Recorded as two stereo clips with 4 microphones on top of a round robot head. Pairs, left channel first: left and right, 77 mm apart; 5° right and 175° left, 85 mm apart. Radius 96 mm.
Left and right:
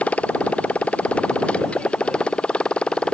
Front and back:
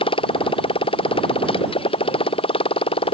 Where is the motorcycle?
10° left.